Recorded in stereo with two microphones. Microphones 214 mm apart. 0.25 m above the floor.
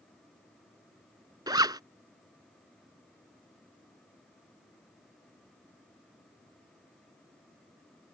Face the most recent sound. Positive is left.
turn(degrees=-20)  # may be behind; listen again after turning